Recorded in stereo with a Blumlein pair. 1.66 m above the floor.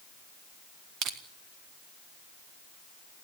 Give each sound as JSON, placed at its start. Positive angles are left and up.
{"t": 1.0, "sound": "crushing", "azimuth_deg": -35, "distance_m": 2.0}